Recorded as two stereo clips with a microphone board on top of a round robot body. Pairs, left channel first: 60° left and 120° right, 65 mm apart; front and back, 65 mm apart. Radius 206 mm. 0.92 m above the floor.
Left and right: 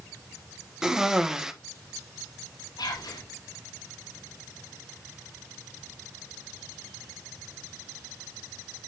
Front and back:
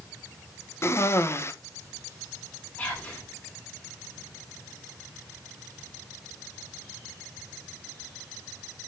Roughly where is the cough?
Ahead right.